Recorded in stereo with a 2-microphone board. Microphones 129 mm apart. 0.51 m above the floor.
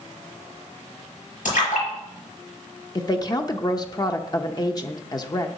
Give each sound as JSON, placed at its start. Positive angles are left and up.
{"t": 1.4, "sound": "a splash", "side_deg": 85, "distance_m": 5.0}
{"t": 3.0, "sound": "a woman speaking", "side_deg": 30, "distance_m": 0.7}